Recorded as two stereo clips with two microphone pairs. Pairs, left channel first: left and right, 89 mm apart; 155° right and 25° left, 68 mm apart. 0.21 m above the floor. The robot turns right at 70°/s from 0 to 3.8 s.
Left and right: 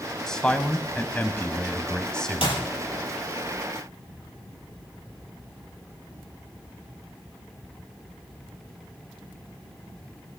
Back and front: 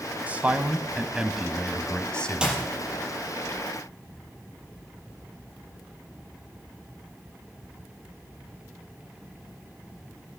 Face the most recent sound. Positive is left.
turn(degrees=-160)